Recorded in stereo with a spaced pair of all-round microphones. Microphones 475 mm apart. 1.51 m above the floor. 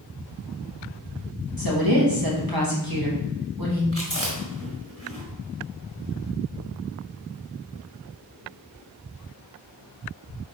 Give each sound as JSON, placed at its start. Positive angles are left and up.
{"t": 1.6, "sound": "a woman speaking", "side_deg": -45, "distance_m": 3.0}
{"t": 3.9, "sound": "chewing", "side_deg": -30, "distance_m": 4.5}